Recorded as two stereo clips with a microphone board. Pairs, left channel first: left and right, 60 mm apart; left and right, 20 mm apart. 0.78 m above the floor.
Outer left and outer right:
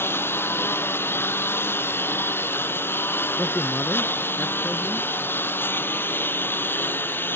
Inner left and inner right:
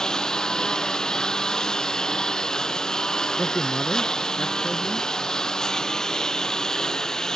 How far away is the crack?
I don't hear a crack.